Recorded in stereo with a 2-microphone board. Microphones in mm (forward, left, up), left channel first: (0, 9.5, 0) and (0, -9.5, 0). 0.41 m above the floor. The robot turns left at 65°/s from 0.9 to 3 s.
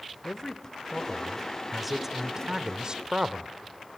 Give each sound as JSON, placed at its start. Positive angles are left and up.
{"t": 0.2, "sound": "a man speaking", "azimuth_deg": 55, "distance_m": 1.0}